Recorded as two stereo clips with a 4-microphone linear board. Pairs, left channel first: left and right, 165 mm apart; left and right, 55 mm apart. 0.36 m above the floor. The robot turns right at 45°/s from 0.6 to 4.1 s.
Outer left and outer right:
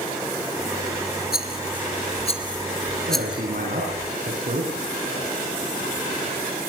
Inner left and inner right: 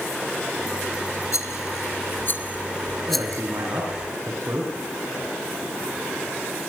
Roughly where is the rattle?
Left.